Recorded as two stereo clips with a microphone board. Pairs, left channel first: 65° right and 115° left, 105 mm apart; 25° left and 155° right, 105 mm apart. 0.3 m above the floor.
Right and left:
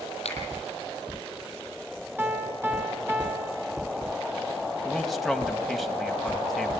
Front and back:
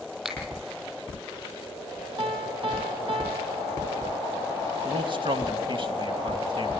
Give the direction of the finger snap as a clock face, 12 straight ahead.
2 o'clock.